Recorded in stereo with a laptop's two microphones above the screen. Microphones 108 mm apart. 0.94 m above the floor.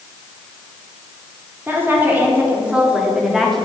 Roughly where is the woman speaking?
Right.